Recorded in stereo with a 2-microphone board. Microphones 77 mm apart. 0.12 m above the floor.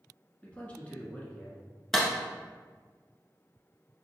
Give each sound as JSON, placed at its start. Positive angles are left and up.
{"t": 0.4, "sound": "a man speaking", "side_deg": 20, "distance_m": 1.1}
{"t": 1.9, "sound": "a clap", "side_deg": 5, "distance_m": 1.0}